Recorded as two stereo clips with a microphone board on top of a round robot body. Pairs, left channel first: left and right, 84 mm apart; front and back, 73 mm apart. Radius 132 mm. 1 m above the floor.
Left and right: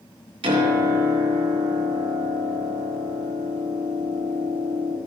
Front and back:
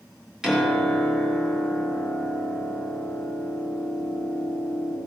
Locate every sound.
0.4 s a piano: 100° right, 3 m